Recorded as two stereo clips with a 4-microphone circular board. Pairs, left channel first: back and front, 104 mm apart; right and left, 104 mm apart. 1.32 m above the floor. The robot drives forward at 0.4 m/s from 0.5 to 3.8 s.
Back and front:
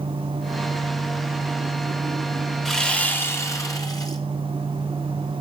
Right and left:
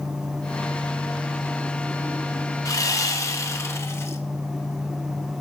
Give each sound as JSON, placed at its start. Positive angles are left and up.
{"t": 2.6, "sound": "sawing", "azimuth_deg": -95, "distance_m": 0.7}